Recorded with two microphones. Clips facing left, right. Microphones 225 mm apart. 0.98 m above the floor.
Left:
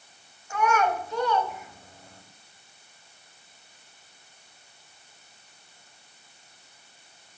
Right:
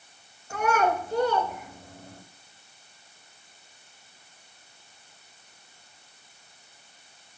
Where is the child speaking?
40° right (ahead or behind), 0.9 m.